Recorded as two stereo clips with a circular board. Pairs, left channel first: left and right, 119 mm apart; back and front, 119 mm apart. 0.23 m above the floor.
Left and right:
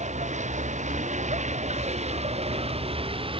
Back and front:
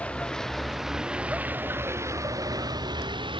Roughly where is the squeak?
I don't hear a squeak.